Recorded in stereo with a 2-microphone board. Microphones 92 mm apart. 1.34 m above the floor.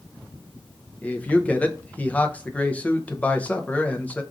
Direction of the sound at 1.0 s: 15° left (ahead or behind).